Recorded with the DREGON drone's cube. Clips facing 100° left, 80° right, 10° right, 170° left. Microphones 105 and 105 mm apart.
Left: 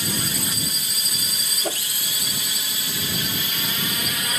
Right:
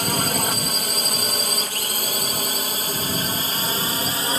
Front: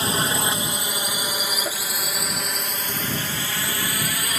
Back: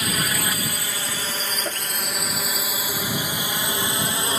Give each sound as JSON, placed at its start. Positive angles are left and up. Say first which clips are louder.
{"t": 0.0, "sound": "a drone", "louder": "right 5 dB, front 3 dB", "azimuth_deg": -65}
{"t": 1.6, "sound": "a whoosh", "louder": "left 4 dB, even", "azimuth_deg": 80}